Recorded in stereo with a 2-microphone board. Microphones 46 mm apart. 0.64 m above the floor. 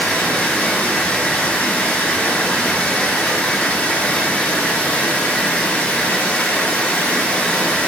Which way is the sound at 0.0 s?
20° left (ahead or behind).